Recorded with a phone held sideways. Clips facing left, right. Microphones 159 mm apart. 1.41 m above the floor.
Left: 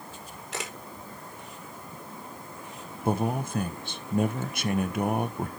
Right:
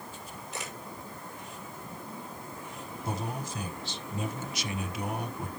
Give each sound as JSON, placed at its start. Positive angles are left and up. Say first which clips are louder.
{"t": 0.5, "sound": "a camera shutter", "louder": "left 4 dB", "side_deg": 85, "distance_m": 4.5}
{"t": 3.0, "sound": "a man speaking", "louder": "left 9 dB", "side_deg": 55, "distance_m": 1.3}